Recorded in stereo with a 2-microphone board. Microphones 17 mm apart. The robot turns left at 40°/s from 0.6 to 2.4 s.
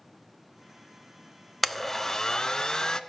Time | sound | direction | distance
1.6 | a blender | 175° left | 0.5 m